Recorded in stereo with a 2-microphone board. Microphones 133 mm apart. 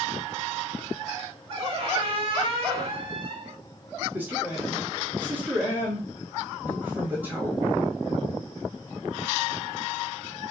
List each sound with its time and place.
1.5 s a squeak: 45° right (ahead or behind), 1.3 m
4.1 s a man speaking: 15° right (ahead or behind), 1.4 m